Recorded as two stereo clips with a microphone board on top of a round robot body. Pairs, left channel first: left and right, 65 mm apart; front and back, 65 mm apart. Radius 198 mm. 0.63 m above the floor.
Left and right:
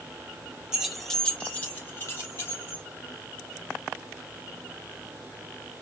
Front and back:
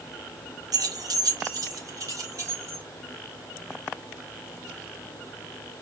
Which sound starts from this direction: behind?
Keys jangling, at 0.7 s.